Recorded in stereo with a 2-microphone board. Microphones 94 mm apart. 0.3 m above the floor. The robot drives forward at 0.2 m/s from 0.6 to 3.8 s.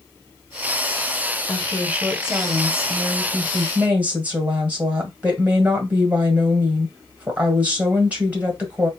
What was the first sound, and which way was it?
A woman speaking, 15° right (ahead or behind).